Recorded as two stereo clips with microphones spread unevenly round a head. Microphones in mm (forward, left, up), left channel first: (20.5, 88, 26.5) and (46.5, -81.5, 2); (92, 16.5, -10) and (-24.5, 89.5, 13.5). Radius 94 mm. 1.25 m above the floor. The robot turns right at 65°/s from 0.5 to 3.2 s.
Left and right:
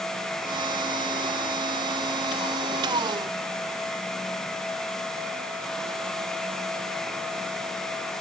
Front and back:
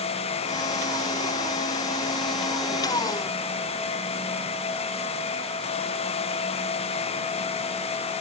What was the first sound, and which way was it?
Only background noise.